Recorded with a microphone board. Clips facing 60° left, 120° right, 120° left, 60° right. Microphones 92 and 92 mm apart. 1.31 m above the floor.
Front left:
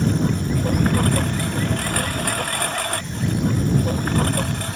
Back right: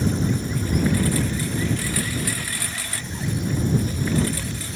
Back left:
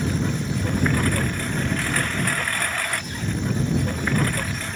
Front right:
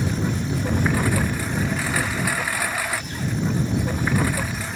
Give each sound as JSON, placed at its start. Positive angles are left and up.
{"t": 0.0, "sound": "a lawn mower", "azimuth_deg": 25}